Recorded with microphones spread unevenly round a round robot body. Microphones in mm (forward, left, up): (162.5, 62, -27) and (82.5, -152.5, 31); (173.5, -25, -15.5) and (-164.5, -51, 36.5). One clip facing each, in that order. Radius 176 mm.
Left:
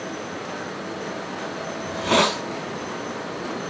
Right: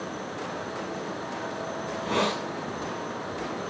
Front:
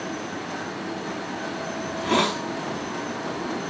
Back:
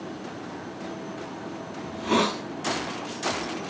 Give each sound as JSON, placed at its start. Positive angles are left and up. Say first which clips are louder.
{"t": 1.9, "sound": "a hiss", "louder": "left 6 dB, even", "azimuth_deg": 95, "distance_m": 0.9}